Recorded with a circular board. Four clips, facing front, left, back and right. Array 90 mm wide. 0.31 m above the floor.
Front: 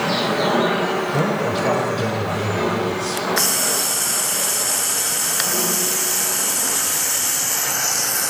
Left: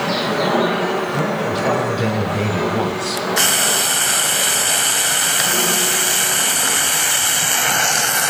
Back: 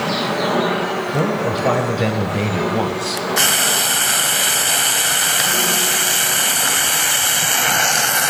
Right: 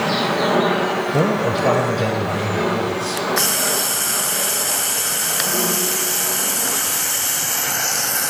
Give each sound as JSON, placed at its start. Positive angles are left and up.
{"t": 1.1, "sound": "a man speaking", "azimuth_deg": -100, "distance_m": 1.2}
{"t": 3.4, "sound": "frying", "azimuth_deg": 145, "distance_m": 0.7}